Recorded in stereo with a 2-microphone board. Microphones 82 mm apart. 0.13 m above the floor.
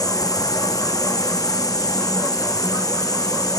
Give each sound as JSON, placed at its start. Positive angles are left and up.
{"t": 0.0, "sound": "a drone", "side_deg": 50}